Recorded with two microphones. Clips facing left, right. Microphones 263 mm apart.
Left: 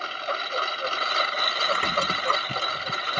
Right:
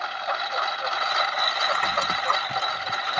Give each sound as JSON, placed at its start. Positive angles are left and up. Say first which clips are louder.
{"t": 0.0, "sound": "a lawn mower", "louder": "even", "side_deg": 30}
{"t": 1.7, "sound": "a squeak", "louder": "left 4 dB", "side_deg": 35}